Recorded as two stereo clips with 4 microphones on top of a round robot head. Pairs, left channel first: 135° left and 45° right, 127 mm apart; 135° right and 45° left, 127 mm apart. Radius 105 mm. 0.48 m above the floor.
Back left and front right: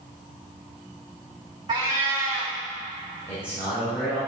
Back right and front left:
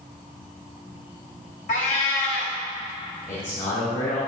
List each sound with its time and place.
1.7 s a cat meowing: 110° right, 3 m
3.3 s a man speaking: 155° right, 3.5 m